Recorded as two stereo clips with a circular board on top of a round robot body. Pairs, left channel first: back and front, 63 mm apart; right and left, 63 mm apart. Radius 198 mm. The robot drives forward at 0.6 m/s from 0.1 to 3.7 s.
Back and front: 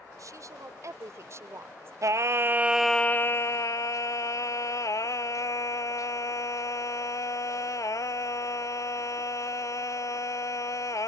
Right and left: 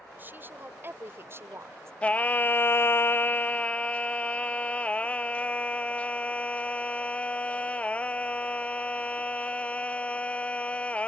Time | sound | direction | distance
0.2 | a woman speaking | 30° left | ?
2.0 | singing | 20° right | ?